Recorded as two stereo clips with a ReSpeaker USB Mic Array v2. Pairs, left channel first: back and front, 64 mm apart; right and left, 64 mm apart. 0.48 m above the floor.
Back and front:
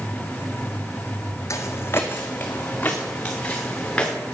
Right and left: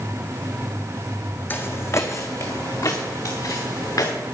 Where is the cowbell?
No cowbell in this recording.